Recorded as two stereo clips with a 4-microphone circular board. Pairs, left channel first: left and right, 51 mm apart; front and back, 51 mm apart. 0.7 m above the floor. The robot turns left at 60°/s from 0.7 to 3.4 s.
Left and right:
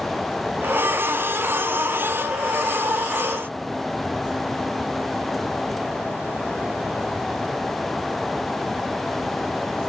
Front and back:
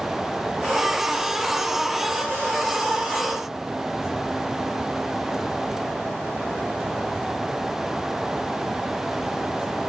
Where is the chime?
I don't hear a chime.